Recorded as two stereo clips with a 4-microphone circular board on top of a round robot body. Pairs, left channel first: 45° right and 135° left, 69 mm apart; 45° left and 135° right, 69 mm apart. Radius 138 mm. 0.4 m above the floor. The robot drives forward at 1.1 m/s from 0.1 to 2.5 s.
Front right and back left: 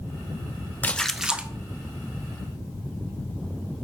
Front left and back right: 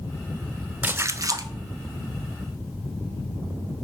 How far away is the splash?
About 0.7 m.